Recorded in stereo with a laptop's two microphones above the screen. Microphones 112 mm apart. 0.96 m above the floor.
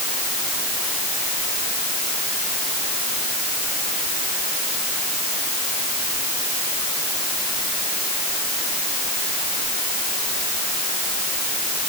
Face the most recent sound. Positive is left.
No sound to turn to.